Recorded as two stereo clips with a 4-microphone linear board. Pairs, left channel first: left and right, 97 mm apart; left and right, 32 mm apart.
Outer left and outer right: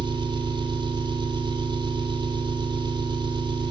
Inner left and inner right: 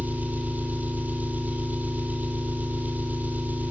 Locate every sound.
0.0 s an engine running: 50° right (ahead or behind), 3 m